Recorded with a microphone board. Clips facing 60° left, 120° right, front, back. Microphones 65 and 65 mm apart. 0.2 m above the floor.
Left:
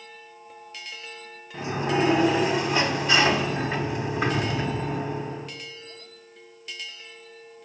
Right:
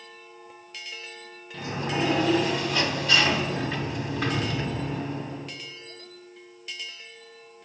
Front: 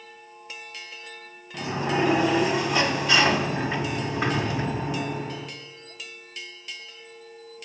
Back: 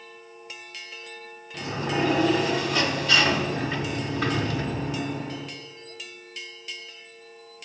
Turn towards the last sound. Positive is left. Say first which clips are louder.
# left 4 dB, front 2 dB
turn(degrees=25)